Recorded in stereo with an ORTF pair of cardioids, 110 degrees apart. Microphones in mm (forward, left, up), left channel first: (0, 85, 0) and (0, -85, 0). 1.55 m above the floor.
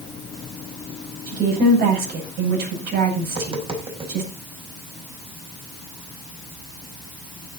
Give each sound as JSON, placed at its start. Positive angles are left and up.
{"t": 1.3, "sound": "a woman speaking", "azimuth_deg": -65, "distance_m": 9.0}
{"t": 3.2, "sound": "tapping", "azimuth_deg": -35, "distance_m": 5.0}